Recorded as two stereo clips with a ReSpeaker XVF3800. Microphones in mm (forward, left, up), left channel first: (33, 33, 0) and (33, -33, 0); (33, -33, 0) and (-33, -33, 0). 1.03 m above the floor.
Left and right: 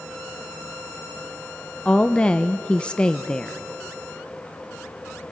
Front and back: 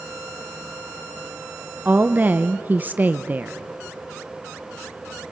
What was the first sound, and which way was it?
A woman speaking, 150° left.